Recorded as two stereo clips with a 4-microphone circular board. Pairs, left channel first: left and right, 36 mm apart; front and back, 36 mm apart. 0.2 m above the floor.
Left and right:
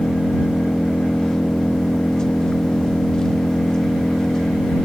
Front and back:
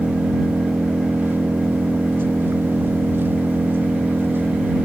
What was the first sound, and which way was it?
An engine running, 160° left.